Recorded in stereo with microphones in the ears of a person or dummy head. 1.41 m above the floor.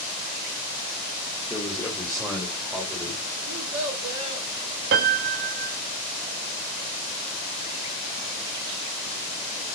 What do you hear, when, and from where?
1.5 s a man speaking: 10° left (ahead or behind), 1.8 m; by 3.2 s 10° right (ahead or behind), 3 m
3.5 s a child speaking: 70° right (ahead or behind), 3.5 m
4.9 s a piano: 55° right (ahead or behind), 1.1 m